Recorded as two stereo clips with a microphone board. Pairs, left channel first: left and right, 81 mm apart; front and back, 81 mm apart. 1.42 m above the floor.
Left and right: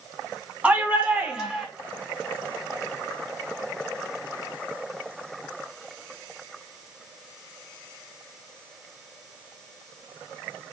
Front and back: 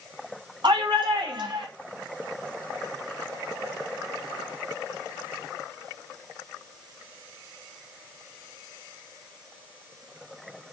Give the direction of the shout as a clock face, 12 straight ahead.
5 o'clock.